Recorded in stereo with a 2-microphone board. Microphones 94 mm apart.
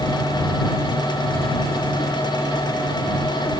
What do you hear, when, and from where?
Only background noise.